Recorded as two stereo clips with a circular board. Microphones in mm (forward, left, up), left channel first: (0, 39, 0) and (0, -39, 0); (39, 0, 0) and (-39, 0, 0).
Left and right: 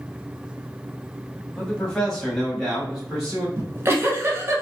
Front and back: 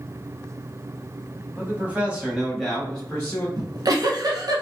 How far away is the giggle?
About 0.9 m.